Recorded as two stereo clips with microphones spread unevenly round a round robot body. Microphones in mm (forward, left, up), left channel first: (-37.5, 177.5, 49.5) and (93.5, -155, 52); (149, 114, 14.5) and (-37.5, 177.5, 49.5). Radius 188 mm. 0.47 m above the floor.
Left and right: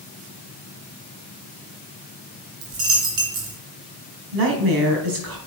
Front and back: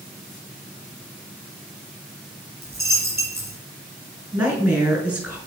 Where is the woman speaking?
100° right, 4 m.